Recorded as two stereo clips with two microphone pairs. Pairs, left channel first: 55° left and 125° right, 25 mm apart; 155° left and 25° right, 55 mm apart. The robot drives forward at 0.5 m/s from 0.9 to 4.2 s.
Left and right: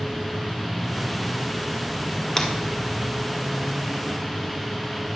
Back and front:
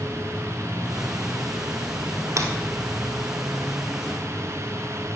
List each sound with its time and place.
2.4 s breaking glass: 10° right, 1.2 m